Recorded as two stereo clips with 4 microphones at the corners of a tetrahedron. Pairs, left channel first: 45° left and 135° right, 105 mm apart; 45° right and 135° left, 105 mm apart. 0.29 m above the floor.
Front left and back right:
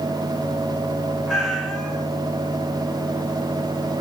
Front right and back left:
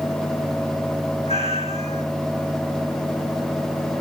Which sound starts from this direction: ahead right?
A cat meowing, at 1.3 s.